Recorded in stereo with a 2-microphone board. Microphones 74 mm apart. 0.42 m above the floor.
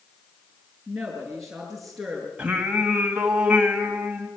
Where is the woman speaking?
5° right (ahead or behind), 5.5 m; by 2.3 s centre (ahead or behind), 6 m.